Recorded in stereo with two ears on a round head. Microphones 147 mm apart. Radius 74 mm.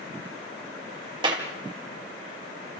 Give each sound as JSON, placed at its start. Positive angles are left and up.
{"t": 1.2, "sound": "a clap", "side_deg": -30, "distance_m": 3.0}